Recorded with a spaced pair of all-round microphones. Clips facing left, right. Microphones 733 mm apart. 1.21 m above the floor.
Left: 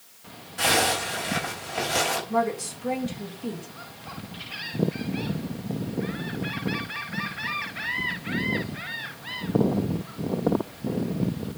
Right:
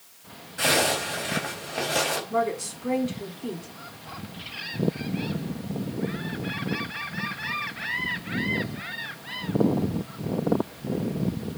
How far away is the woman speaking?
About 3.5 m.